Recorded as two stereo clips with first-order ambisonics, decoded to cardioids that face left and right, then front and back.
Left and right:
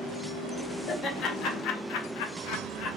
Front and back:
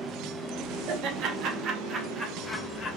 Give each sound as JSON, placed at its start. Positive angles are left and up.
{"t": 0.9, "sound": "laughter", "azimuth_deg": 150, "distance_m": 1.5}